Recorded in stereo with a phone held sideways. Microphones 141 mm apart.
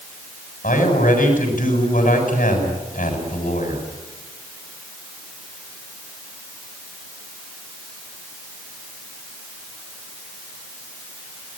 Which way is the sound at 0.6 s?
90° left.